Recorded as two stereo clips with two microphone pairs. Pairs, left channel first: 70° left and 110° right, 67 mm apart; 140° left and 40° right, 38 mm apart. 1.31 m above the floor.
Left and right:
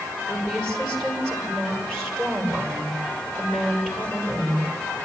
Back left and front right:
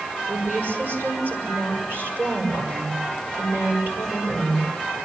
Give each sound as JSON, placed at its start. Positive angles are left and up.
{"t": 0.3, "sound": "a woman speaking", "azimuth_deg": -10, "distance_m": 7.0}